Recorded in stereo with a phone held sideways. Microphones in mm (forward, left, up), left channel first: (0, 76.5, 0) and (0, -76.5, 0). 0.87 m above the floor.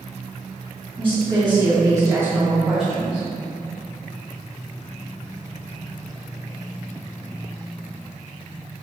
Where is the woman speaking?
40° right (ahead or behind), 1.5 m; by 3.3 s 15° left (ahead or behind), 0.9 m.